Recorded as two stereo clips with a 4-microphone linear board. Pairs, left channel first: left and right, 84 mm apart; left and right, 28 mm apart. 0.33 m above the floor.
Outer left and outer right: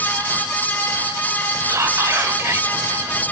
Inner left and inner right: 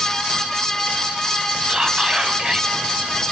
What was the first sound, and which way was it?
Whispering, 30° right (ahead or behind).